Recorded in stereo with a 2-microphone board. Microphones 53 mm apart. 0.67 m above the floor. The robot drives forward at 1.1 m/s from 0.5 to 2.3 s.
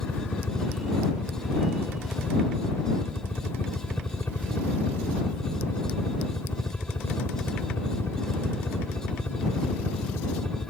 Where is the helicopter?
40° left (ahead or behind).